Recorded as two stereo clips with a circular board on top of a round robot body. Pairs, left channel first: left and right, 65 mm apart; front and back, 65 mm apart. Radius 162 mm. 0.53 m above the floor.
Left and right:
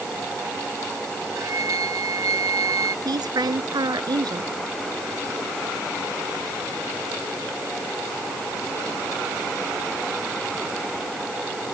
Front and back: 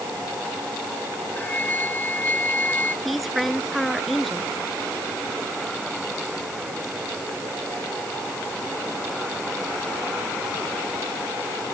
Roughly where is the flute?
Ahead right.